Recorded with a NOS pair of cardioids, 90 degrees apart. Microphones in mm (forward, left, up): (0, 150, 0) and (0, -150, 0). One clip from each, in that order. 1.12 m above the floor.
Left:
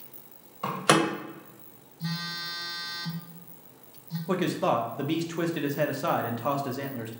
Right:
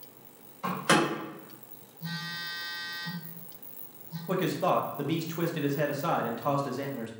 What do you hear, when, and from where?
0.6 s a door slam: 45° left, 1.7 m
2.0 s a phone buzzing: 65° left, 1.0 m
4.3 s a man speaking: 15° left, 0.6 m